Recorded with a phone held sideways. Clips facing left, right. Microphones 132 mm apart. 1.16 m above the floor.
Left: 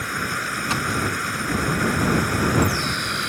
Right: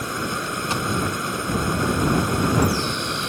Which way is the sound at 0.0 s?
20° right (ahead or behind).